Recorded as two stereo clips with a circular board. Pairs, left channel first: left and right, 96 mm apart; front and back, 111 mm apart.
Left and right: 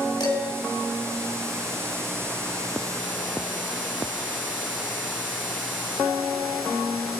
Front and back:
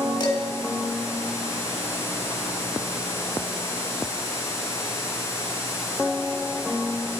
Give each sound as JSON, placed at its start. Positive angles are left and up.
{"t": 0.2, "sound": "dishes clattering", "azimuth_deg": 45, "distance_m": 3.0}